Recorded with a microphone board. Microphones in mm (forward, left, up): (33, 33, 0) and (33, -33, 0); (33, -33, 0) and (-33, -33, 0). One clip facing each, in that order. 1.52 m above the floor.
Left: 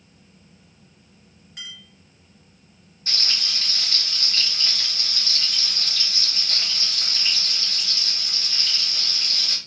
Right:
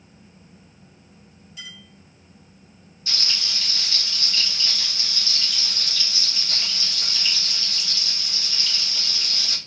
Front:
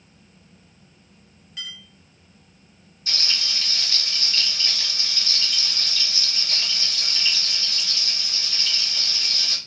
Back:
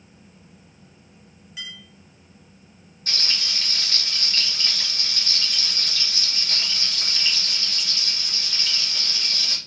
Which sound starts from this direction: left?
A clink, at 1.6 s.